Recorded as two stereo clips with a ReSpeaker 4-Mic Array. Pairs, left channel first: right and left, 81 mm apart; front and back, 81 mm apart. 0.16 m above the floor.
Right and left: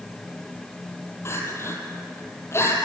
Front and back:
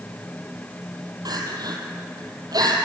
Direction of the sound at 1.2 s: 145° right.